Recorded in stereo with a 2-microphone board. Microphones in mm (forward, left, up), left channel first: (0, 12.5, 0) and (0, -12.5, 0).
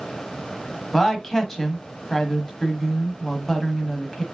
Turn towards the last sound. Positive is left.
turn(degrees=15)  # may be behind; listen again after turning